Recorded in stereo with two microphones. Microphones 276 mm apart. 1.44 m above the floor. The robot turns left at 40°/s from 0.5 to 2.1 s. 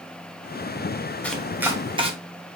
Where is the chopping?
5° left (ahead or behind), 0.7 m; by 2.1 s 20° right (ahead or behind), 0.7 m.